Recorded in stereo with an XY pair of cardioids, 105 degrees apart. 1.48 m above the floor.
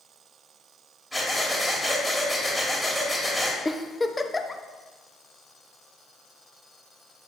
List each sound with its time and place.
1.1 s breathing: 5° right, 2.5 m
3.6 s a giggle: 15° left, 0.7 m